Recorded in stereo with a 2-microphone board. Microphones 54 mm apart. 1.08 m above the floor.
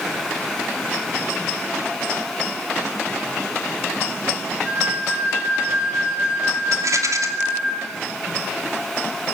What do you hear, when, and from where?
4.7 s a flute: 25° right (ahead or behind), 9.5 m
6.7 s a rattle: 80° right, 2.5 m